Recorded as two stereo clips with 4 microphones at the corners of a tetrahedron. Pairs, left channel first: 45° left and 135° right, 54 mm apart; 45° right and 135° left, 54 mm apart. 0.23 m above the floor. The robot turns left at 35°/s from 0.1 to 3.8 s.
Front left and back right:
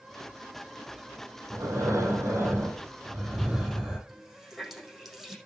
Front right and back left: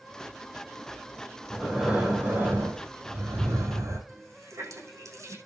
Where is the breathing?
140° right, 4.5 m; by 4.0 s 140° left, 4.5 m.